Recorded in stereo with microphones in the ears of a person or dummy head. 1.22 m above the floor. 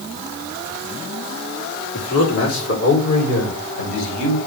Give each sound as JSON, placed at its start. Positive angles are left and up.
{"t": 1.9, "sound": "a man speaking", "side_deg": 80, "distance_m": 3.5}